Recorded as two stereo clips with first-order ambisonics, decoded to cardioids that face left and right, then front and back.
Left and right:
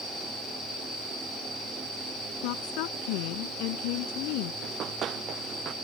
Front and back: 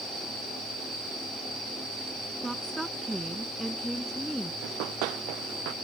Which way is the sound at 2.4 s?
95° left.